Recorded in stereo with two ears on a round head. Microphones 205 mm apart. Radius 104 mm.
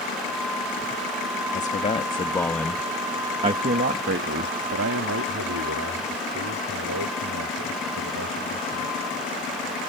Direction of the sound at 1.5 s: 35° left (ahead or behind).